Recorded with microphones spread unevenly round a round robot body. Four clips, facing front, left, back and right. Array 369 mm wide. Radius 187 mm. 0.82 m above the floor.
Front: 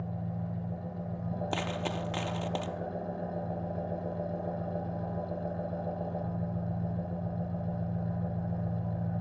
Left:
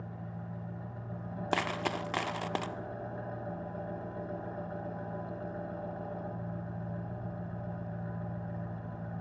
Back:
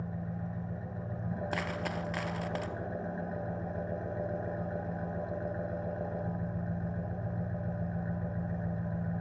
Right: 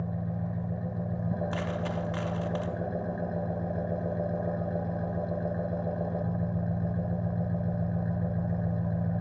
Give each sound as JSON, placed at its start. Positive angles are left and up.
{"t": 0.0, "sound": "an engine running", "azimuth_deg": -85, "distance_m": 2.5}
{"t": 1.5, "sound": "a dropped coin", "azimuth_deg": 65, "distance_m": 1.0}